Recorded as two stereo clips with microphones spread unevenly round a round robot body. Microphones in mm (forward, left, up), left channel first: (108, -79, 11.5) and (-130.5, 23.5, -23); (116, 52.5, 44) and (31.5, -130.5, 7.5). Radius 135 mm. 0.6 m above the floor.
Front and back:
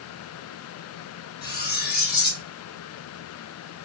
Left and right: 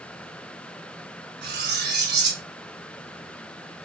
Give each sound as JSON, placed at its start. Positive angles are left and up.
{"t": 1.4, "sound": "cutlery clinking", "azimuth_deg": -80, "distance_m": 1.1}